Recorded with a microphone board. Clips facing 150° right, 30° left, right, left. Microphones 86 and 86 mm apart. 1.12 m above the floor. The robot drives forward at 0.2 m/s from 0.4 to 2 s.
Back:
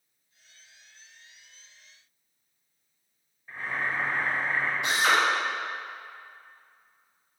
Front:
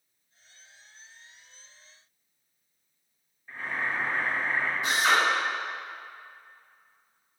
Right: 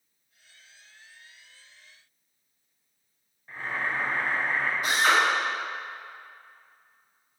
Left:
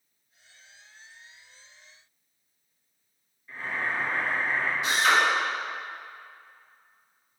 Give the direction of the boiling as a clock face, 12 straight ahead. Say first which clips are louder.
Even, even; 3 o'clock.